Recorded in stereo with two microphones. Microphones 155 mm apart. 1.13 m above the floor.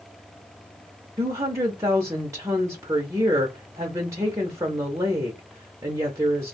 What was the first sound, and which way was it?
A woman speaking, 20° right (ahead or behind).